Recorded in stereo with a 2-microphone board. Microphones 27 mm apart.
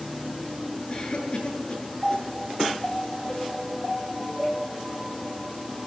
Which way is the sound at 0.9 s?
40° left (ahead or behind).